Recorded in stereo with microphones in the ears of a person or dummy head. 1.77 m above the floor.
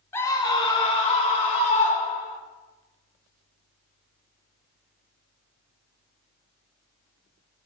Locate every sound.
0.1 s a scream: 15° left (ahead or behind), 1.9 m; by 2.4 s 40° left (ahead or behind), 5 m